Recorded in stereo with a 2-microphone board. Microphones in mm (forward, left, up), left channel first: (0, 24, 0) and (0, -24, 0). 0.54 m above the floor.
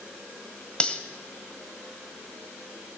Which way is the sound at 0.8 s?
20° left (ahead or behind).